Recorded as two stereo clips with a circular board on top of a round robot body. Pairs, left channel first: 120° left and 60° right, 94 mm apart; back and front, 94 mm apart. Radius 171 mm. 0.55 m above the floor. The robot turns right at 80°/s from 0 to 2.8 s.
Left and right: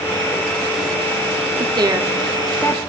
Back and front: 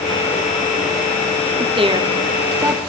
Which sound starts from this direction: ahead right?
A woman speaking, at 1.6 s.